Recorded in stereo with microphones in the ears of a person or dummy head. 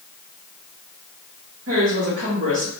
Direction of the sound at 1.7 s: 60° right (ahead or behind).